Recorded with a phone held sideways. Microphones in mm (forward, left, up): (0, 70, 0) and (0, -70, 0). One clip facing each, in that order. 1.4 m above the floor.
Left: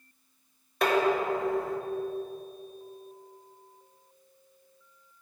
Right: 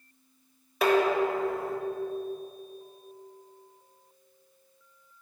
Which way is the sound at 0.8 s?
5° right (ahead or behind).